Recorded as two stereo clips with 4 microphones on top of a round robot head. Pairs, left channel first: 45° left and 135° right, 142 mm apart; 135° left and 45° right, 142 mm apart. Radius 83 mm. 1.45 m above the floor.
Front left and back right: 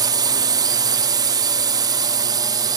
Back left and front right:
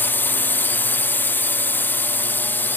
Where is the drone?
160° right.